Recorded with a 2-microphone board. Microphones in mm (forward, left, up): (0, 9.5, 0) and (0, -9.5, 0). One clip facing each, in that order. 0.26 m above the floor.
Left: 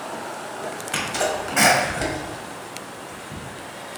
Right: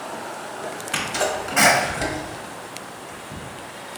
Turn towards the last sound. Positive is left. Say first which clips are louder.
# even
turn(degrees=0)  # may be behind; listen again after turning